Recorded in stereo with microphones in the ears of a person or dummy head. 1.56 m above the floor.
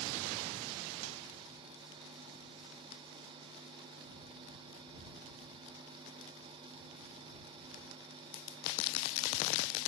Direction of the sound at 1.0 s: 85° right.